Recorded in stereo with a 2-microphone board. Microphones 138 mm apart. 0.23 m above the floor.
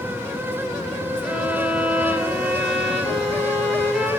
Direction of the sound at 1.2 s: 5° right (ahead or behind).